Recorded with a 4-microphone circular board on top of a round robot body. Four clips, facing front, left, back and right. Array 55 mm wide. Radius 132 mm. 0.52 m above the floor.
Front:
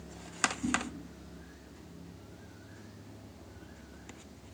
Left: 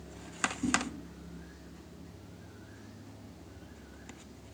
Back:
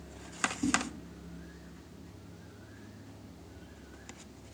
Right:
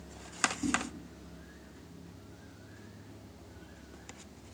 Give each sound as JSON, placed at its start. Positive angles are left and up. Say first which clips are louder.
{"t": 0.6, "sound": "a whoosh", "louder": "left 1 dB, back 3 dB", "azimuth_deg": -160, "distance_m": 1.1}